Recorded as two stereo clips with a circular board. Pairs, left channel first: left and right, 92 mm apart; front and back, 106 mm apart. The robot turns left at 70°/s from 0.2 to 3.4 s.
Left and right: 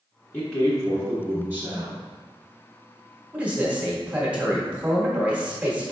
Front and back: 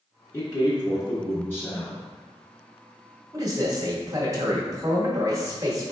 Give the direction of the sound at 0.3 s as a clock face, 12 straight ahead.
11 o'clock.